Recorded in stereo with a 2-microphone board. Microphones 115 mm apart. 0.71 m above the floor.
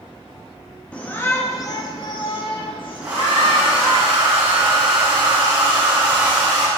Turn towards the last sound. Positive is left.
turn(degrees=-15)  # may be behind; listen again after turning